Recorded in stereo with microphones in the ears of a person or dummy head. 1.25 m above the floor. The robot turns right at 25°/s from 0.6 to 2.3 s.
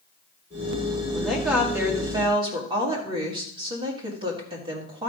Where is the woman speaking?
Centre (ahead or behind), 1.8 m; by 5.1 s 25° right (ahead or behind), 1.8 m.